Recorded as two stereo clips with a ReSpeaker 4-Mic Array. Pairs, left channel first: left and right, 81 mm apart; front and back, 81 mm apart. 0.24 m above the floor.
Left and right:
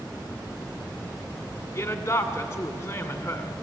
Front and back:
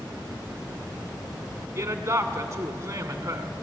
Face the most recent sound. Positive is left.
turn(degrees=130)